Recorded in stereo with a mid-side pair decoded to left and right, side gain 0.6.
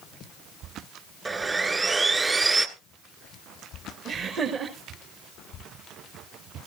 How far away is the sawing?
About 2.0 m.